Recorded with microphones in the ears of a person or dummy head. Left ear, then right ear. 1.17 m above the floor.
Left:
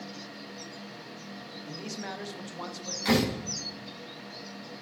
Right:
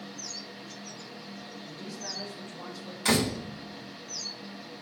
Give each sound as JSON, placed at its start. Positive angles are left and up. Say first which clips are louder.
{"t": 1.7, "sound": "a man speaking", "louder": "left 1 dB", "side_deg": 65, "distance_m": 1.4}
{"t": 3.0, "sound": "a door slam", "louder": "even", "side_deg": -25, "distance_m": 2.5}